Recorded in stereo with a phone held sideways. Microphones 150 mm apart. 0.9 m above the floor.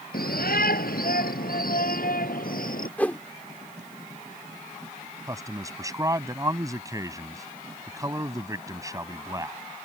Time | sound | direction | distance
0.1 | a shout | 80° left | ?
3.0 | a whoosh | 10° left (ahead or behind) | ?
5.3 | a man speaking | 20° right (ahead or behind) | ?